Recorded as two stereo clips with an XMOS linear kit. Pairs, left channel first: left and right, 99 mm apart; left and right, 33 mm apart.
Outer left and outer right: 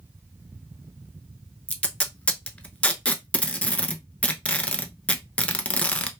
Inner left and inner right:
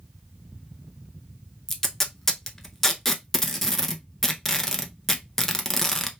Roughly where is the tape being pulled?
Centre.